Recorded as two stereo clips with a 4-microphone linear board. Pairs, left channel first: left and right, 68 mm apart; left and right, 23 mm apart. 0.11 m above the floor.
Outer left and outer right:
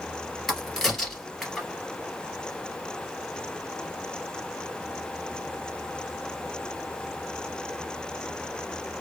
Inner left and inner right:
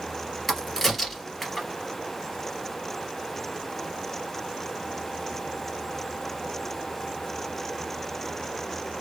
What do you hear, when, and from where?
0.5 s a crack: 5° left (ahead or behind), 1.7 m